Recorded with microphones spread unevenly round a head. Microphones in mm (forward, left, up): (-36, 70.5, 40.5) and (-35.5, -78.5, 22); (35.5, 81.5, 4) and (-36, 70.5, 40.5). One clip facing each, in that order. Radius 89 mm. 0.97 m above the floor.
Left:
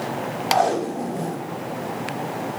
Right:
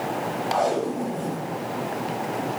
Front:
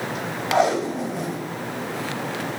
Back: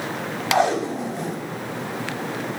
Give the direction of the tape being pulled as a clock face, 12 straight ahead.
9 o'clock.